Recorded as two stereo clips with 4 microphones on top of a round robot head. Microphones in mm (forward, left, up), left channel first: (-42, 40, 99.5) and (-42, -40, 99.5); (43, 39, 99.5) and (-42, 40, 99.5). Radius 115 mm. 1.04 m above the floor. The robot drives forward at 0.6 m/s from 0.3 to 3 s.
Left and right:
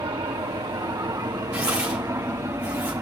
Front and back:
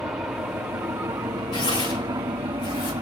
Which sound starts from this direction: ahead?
Tearing paper, at 1.5 s.